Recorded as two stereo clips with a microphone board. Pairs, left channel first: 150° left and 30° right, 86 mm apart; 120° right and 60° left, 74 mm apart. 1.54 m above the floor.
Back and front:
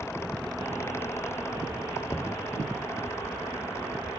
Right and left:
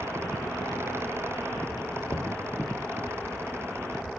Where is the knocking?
150° right, 0.8 m.